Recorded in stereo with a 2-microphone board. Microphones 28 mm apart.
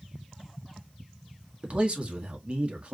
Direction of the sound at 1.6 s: 40° right (ahead or behind).